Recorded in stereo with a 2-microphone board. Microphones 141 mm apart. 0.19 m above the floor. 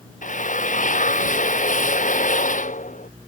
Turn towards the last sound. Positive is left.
turn(degrees=65)  # may be behind; listen again after turning